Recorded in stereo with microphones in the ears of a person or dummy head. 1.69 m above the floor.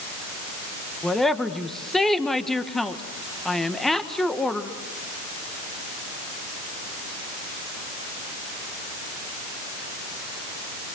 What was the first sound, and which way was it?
A woman speaking, centre (ahead or behind).